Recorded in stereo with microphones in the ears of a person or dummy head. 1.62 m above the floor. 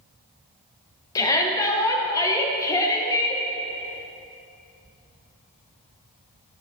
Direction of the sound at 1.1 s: 15° left (ahead or behind).